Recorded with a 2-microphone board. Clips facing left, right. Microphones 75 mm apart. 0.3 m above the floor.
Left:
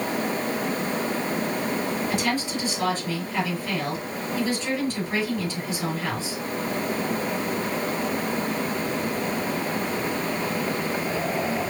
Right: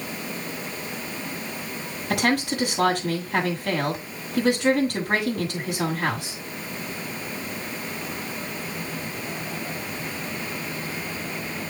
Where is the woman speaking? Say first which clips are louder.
Right 2 dB; 75° right (ahead or behind), 5.5 m.